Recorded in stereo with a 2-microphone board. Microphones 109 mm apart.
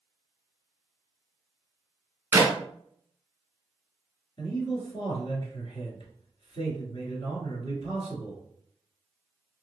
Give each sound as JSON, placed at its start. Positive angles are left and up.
{"t": 2.3, "sound": "a clap", "side_deg": -20, "distance_m": 0.8}
{"t": 4.4, "sound": "a man speaking", "side_deg": 50, "distance_m": 1.7}